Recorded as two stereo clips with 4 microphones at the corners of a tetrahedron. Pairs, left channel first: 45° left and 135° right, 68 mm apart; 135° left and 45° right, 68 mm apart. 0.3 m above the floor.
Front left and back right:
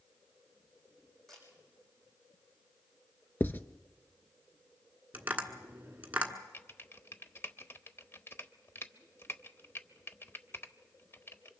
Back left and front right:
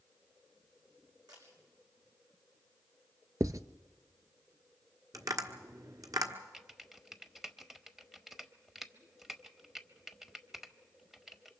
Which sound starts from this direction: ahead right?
A camera shutter, at 1.3 s.